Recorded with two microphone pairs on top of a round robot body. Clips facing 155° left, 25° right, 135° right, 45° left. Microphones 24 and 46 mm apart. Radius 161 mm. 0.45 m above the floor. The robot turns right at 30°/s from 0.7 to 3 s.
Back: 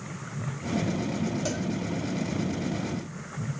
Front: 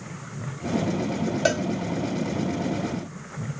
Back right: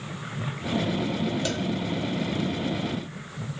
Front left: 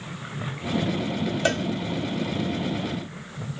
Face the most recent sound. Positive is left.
turn(degrees=40)